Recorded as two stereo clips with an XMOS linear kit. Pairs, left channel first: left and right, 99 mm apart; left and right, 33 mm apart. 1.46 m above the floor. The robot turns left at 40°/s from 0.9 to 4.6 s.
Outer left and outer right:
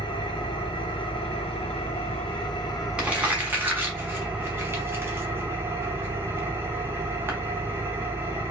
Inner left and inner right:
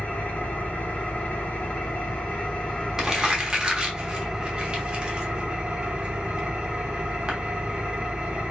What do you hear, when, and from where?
0.0 s an engine running: 120° left, 0.8 m; by 8.5 s 25° right, 0.8 m
3.0 s crumpling: 10° right (ahead or behind), 0.7 m; by 7.3 s 25° right (ahead or behind), 0.7 m